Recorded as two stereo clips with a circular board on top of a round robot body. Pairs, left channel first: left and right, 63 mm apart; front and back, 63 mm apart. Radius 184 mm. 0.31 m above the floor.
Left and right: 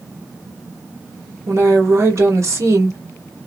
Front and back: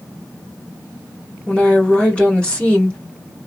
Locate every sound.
1.5 s a woman speaking: 70° right, 1.8 m